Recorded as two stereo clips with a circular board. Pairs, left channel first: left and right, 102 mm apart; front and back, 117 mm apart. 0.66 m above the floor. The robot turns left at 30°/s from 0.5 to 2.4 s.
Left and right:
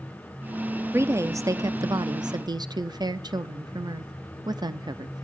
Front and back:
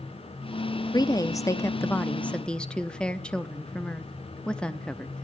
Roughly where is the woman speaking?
Ahead right.